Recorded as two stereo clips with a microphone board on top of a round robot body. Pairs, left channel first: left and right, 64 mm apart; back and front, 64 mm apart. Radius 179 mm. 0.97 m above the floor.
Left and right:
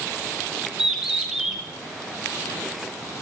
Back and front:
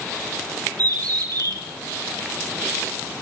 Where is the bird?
5° right, 7 m.